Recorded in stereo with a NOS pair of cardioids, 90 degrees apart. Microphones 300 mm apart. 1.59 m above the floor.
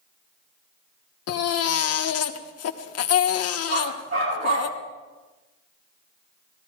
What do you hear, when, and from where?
1.3 s a baby crying: 55° left, 1.3 m
3.7 s a dog barking: 45° right, 8 m